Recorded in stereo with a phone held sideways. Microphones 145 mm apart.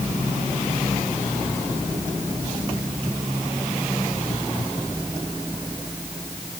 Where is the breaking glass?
I don't hear breaking glass.